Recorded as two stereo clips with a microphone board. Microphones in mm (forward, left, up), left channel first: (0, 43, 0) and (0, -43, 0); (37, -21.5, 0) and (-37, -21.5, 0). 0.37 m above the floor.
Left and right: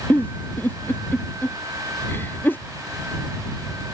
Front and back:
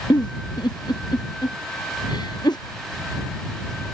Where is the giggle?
20° left.